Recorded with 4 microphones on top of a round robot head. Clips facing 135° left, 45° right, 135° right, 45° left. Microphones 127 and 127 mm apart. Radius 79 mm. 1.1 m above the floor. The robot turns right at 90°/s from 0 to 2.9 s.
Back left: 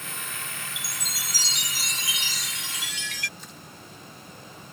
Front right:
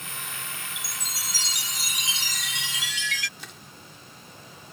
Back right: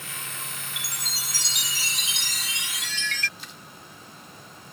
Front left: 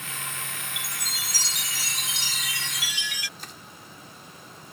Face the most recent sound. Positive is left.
turn(degrees=-10)